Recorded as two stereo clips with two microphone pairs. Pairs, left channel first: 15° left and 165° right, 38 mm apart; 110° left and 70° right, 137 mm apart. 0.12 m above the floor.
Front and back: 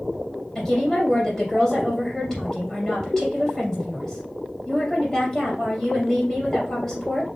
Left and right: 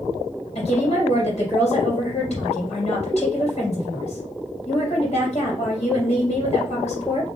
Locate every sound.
0.6 s a woman speaking: 90° left, 2.5 m